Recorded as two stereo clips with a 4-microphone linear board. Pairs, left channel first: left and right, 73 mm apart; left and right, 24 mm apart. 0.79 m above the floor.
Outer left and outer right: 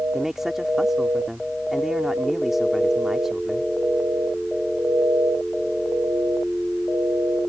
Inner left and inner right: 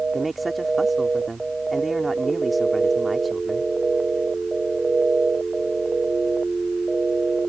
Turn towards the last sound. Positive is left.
turn(degrees=-5)  # may be behind; listen again after turning